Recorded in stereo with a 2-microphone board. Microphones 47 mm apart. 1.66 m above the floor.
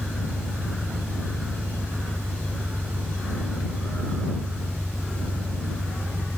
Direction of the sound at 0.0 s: 15° right (ahead or behind).